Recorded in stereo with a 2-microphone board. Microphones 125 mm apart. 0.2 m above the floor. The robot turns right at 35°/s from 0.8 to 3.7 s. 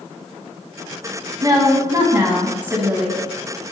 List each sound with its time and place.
1.4 s a woman speaking: 70° right, 1.6 m; by 3.2 s 5° right, 1.6 m